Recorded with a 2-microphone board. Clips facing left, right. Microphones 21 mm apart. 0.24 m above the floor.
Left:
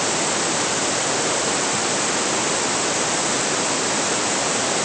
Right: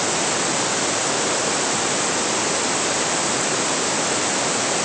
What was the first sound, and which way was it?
Only background noise.